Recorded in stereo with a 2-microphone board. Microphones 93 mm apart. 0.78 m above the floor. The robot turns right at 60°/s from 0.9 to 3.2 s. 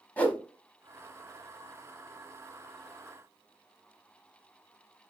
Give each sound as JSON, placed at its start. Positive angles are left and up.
{"t": 0.2, "sound": "a whoosh", "side_deg": 20, "distance_m": 0.6}